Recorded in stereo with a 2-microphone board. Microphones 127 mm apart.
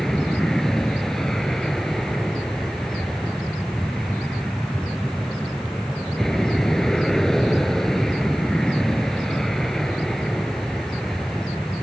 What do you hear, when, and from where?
0.0 s an aircraft: centre (ahead or behind)